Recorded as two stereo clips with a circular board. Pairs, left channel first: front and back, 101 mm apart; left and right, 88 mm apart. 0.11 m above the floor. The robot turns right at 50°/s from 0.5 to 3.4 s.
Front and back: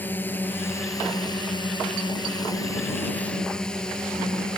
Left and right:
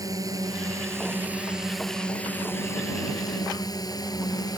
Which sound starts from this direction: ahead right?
A drone, at 0.0 s.